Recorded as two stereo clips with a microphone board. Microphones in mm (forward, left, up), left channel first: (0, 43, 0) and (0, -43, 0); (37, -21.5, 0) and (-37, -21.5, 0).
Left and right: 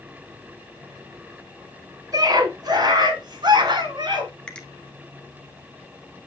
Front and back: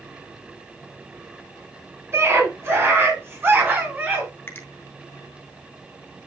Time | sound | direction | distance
2.1 | a scream | 130° right | 4 m
4.5 | a finger snap | 20° left | 1.1 m